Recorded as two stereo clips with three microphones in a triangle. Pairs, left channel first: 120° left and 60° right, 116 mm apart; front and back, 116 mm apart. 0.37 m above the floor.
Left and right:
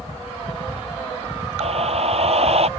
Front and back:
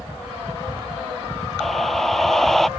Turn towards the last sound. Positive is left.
turn(degrees=-90)